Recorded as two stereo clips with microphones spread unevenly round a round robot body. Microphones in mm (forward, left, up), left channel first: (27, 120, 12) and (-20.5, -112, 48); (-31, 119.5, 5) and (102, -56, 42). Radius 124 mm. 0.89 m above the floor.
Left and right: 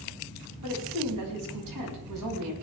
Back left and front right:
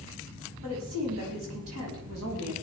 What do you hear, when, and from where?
0.6 s a woman speaking: 90° right, 5.5 m